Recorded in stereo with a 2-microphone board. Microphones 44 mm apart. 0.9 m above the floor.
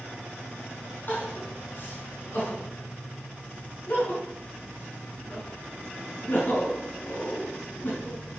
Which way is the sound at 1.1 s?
45° left (ahead or behind).